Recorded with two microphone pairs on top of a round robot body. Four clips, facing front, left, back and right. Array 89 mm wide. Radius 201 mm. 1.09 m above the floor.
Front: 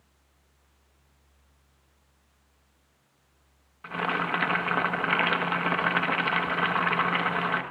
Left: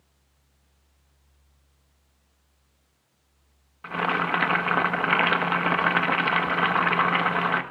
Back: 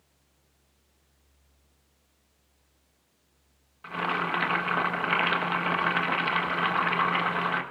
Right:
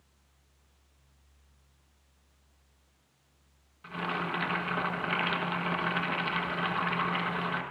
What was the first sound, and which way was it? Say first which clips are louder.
Boiling: left 8 dB, even; 75° left.